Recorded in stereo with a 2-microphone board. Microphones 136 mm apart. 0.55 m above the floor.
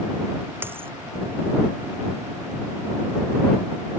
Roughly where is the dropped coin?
Centre.